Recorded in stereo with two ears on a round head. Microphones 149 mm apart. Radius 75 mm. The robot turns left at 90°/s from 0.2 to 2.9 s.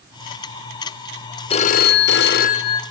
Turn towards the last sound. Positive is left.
turn(degrees=15)